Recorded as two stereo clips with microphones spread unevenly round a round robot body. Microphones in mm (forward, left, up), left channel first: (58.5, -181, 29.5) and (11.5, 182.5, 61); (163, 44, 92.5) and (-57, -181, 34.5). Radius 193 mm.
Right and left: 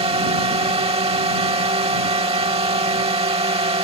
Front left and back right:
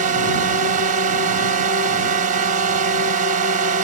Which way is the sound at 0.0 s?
175° left.